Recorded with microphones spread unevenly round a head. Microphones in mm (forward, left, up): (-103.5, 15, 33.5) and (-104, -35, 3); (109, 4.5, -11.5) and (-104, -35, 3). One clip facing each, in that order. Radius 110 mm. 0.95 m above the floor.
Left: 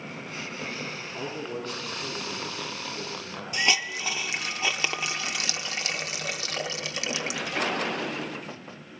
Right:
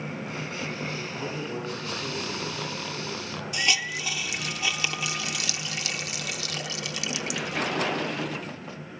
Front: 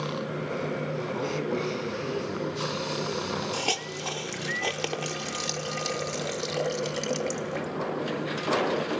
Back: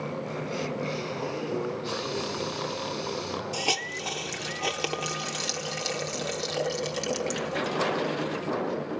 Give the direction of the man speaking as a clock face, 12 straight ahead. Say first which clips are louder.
Right 1 dB, front 4 dB; 12 o'clock.